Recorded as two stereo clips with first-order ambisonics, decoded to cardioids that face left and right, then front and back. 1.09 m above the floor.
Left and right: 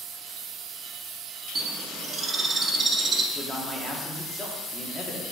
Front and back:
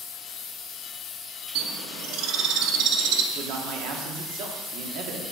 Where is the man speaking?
165° left, 1.0 m.